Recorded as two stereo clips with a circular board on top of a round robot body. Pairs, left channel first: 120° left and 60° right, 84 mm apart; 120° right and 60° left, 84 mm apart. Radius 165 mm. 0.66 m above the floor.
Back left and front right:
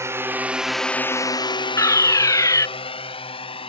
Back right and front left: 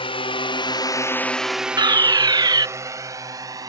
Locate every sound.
0.0 s a drone: 115° right; by 3.7 s 110° left
1.8 s a fire alarm: 80° left